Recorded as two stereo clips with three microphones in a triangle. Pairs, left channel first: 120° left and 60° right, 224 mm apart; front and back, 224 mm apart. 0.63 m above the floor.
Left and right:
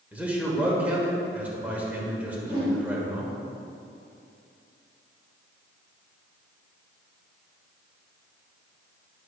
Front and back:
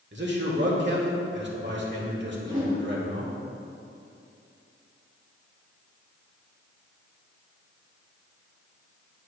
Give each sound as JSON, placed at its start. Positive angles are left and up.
{"t": 0.1, "sound": "a man speaking", "azimuth_deg": -145, "distance_m": 1.6}
{"t": 2.4, "sound": "a whoosh", "azimuth_deg": -125, "distance_m": 1.9}